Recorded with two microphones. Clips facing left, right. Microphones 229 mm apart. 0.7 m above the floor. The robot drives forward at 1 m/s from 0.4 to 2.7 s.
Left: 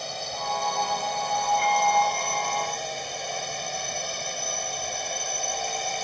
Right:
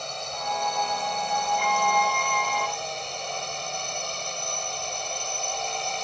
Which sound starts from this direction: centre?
A drone, at 0.0 s.